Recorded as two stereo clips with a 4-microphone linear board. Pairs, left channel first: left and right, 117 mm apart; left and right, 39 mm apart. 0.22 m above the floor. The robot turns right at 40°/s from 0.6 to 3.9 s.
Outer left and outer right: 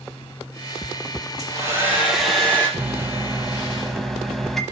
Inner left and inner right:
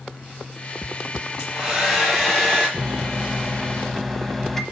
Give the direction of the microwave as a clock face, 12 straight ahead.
1 o'clock.